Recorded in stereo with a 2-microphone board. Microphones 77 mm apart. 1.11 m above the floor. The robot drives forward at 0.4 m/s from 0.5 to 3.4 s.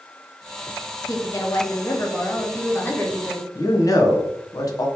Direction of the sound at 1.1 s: 45° left (ahead or behind).